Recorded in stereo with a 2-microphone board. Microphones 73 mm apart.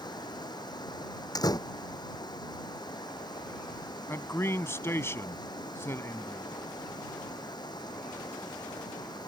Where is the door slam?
65° left (ahead or behind).